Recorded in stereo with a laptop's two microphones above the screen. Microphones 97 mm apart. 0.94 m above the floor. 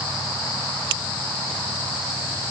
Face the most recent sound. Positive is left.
No sound to turn to.